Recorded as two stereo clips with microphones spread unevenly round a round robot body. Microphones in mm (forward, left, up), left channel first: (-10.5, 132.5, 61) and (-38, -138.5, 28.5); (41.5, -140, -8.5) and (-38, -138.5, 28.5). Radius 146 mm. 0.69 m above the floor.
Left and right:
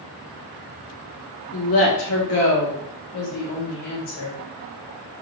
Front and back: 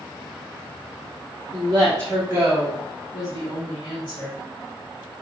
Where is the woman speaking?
120° left, 1.4 m; by 4.4 s 45° left, 1.9 m.